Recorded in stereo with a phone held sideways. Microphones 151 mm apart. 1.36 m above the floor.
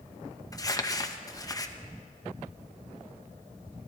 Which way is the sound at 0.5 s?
25° left (ahead or behind).